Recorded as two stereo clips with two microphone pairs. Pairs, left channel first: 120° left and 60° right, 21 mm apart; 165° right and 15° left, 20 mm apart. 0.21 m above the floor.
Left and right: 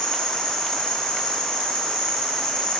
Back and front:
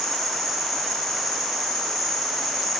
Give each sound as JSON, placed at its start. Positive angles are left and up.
{"t": 0.0, "sound": "an insect", "azimuth_deg": 110, "distance_m": 1.5}